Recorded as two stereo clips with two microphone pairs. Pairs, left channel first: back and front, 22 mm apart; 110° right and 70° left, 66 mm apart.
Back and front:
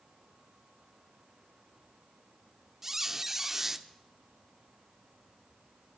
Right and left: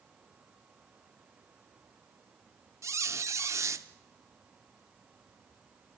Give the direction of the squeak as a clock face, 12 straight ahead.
10 o'clock.